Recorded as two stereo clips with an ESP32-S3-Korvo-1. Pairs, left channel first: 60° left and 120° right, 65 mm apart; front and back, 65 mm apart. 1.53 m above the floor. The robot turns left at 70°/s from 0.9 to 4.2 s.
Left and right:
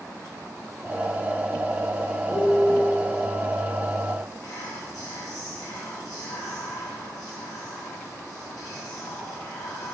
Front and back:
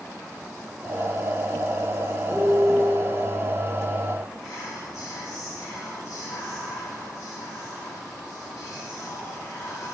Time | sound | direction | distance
2.3 | a piano | 100° left | 1.4 m
4.4 | whispering | 25° left | 1.7 m